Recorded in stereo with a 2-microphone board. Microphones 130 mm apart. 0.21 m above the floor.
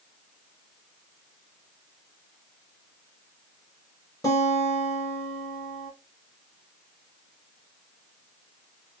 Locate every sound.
4.2 s a guitar: 25° left (ahead or behind), 2.5 m